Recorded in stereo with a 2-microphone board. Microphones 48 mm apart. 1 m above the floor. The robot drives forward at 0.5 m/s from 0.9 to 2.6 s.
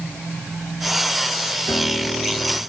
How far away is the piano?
About 6 m.